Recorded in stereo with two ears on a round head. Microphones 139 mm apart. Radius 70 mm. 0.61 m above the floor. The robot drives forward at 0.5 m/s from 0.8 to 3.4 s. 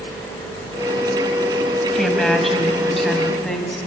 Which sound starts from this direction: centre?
A woman speaking, at 1.9 s.